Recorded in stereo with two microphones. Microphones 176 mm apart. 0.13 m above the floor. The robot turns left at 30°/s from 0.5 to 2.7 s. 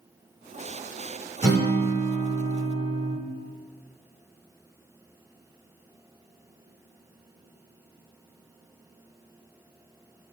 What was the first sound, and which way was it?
A guitar, 20° right (ahead or behind).